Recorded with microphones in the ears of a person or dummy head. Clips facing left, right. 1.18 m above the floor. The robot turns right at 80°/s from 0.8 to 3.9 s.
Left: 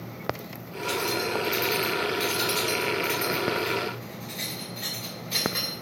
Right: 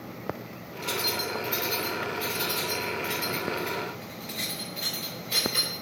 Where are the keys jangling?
75° right (ahead or behind), 3.5 m; by 5.7 s 5° left (ahead or behind), 3.5 m.